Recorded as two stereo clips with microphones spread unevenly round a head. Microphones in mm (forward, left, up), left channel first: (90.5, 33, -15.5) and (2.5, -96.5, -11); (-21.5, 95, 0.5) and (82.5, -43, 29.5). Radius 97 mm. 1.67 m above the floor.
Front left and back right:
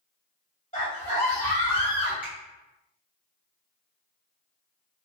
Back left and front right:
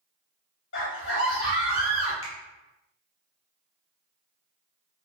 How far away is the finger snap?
About 0.8 m.